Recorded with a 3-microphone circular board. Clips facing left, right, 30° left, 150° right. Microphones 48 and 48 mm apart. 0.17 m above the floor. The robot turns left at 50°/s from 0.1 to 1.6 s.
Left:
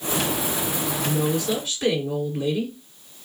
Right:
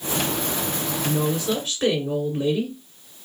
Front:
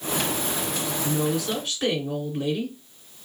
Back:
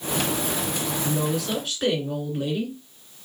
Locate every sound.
1.0 s a woman speaking: 35° right, 2 m; by 2.8 s 60° right, 2 m